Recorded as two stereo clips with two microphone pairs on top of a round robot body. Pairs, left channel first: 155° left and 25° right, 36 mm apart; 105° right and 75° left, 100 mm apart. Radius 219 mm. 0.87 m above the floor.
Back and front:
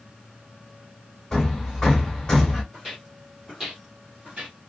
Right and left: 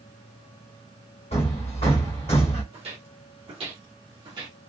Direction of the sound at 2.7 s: 60° left.